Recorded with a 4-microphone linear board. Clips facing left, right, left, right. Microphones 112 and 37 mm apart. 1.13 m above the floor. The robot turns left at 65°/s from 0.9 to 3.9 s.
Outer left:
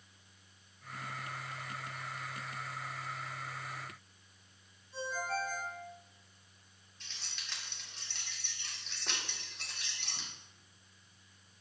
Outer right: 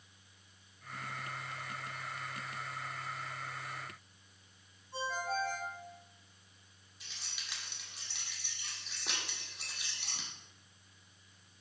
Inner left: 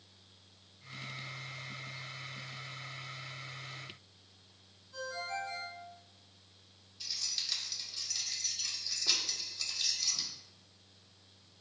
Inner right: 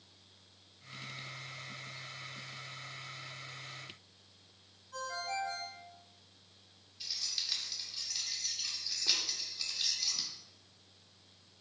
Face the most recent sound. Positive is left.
turn(degrees=-10)  # may be behind; listen again after turning